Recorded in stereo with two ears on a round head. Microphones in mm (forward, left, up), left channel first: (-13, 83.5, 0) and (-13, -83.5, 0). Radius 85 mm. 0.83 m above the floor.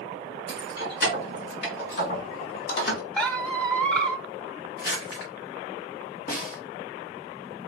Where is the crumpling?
55° left (ahead or behind), 3 m.